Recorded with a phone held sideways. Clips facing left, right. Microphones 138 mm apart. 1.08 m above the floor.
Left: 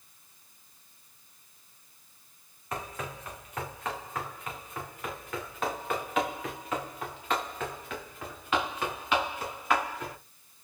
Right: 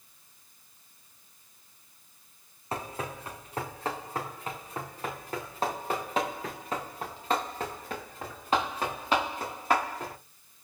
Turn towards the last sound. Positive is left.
turn(degrees=-35)  # may be behind; listen again after turning